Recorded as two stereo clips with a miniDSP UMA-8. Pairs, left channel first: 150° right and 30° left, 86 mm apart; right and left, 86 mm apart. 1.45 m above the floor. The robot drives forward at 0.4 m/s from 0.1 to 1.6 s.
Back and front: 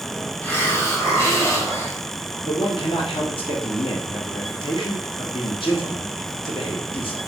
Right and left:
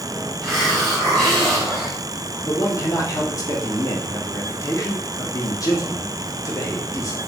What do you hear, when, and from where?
0.4 s a hiss: 170° right, 1.0 m; by 2.0 s 175° right, 1.2 m
2.4 s a man speaking: 140° right, 1.0 m